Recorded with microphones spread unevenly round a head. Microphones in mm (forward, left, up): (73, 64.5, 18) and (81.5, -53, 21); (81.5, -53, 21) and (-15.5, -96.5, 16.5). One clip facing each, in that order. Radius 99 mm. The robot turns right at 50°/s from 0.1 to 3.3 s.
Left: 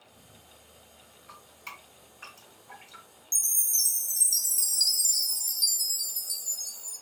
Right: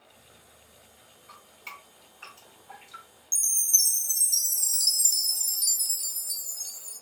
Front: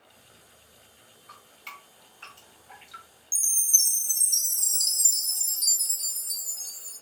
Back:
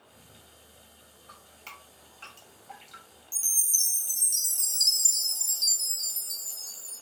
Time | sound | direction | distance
1.3 | dripping | 145° left | 1.6 m
3.3 | a chime | 25° right | 1.7 m